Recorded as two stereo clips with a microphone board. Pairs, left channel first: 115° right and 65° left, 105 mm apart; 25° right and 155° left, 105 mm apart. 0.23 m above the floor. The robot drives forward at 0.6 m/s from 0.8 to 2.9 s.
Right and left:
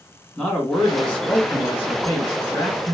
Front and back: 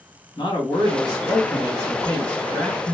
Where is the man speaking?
25° right, 1.8 m; by 2.9 s 100° right, 1.4 m.